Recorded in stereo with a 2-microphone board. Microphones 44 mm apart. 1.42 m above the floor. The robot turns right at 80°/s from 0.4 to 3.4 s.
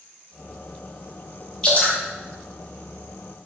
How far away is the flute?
No flute in this recording.